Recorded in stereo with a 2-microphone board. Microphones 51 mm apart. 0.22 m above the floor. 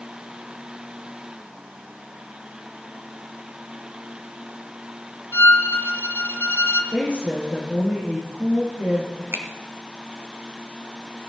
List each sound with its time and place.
5.3 s a violin: 55° left (ahead or behind), 1.3 m
6.9 s a woman speaking: 30° right (ahead or behind), 6 m
9.3 s a finger snap: 50° right (ahead or behind), 2.0 m